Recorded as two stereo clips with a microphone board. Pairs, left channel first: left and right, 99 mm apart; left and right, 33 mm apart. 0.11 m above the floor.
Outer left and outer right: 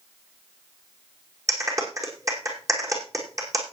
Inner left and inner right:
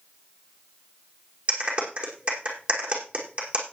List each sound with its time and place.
1.5 s a clap: 30° right (ahead or behind), 4.5 m